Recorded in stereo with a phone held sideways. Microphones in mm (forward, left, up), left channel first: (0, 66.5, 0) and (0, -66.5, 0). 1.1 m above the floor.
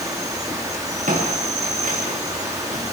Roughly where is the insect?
Right.